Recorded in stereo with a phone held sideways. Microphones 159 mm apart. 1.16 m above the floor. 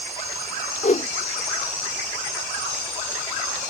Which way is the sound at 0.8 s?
50° left (ahead or behind).